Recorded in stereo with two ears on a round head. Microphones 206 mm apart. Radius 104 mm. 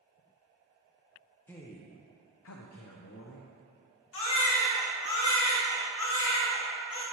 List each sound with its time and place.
1.5 s a man speaking: 10° left (ahead or behind), 1.0 m; by 3.5 s 45° left (ahead or behind), 1.3 m
4.1 s a baby crying: 60° left (ahead or behind), 1.9 m